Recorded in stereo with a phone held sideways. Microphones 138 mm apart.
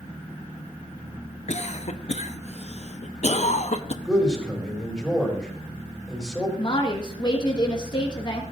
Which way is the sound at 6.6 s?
35° left (ahead or behind).